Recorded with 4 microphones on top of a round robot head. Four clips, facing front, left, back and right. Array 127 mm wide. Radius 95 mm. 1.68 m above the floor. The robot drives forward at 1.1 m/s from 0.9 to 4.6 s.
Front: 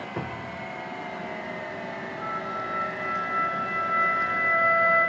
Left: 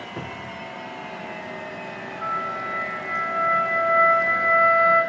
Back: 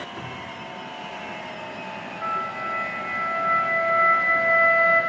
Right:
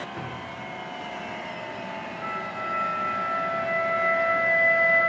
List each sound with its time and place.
0.2 s a cupboard door: 25° left, 1.3 m
2.2 s a flute: 110° left, 5.5 m; by 5.0 s 130° left, 7 m